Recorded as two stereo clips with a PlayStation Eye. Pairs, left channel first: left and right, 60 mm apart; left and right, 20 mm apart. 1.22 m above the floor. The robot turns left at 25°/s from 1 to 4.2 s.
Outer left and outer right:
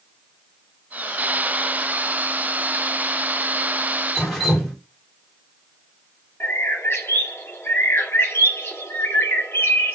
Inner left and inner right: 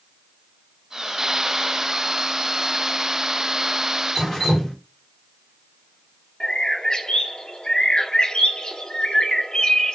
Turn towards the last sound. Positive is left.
turn(degrees=40)  # may be behind; listen again after turning